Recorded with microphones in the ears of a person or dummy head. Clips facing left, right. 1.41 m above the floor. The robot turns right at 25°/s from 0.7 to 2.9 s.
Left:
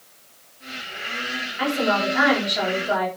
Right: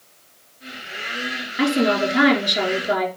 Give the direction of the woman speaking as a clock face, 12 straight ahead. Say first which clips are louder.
Right 4 dB; 2 o'clock.